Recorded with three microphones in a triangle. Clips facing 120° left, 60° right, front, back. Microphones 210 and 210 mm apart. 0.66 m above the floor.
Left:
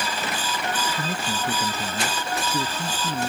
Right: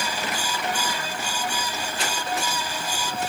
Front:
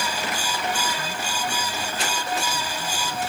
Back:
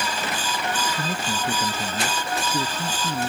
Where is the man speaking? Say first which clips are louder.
Left 3 dB, back 3 dB; 145° left.